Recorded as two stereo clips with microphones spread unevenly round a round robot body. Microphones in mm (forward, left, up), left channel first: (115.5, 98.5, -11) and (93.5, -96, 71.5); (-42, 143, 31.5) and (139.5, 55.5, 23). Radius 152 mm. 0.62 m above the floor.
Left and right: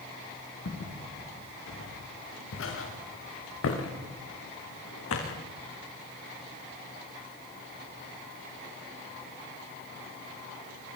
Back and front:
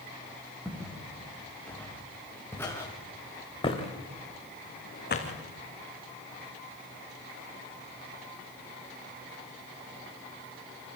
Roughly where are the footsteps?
Ahead left.